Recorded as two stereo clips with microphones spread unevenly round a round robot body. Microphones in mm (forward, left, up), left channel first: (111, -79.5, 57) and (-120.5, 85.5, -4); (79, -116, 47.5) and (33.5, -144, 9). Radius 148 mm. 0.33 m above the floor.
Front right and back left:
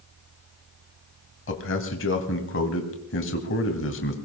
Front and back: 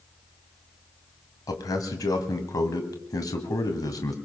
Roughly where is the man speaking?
Ahead.